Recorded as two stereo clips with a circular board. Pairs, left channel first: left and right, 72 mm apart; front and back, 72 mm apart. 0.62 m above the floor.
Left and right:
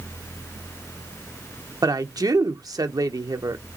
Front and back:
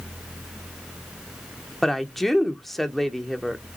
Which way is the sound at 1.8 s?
85° right.